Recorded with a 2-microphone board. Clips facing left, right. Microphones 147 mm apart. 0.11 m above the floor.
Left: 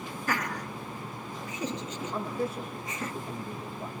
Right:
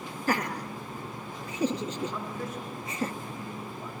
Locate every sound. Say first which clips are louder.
0.3 s laughter: right 4 dB; 35° right (ahead or behind), 1.6 m
2.1 s a man speaking: left 4 dB; 30° left (ahead or behind), 7.5 m